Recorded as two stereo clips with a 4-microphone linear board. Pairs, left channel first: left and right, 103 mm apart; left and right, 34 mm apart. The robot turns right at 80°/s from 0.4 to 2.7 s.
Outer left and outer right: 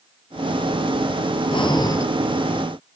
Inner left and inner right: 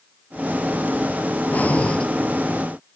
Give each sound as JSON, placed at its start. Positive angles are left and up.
{"t": 1.5, "sound": "breathing", "azimuth_deg": 105, "distance_m": 1.7}